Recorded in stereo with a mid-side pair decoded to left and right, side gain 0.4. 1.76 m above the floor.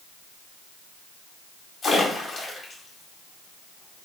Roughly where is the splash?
Ahead left.